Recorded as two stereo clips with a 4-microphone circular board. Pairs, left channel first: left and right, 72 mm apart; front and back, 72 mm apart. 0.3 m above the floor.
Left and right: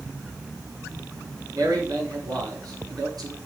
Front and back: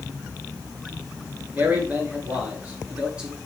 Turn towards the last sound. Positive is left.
turn(degrees=-105)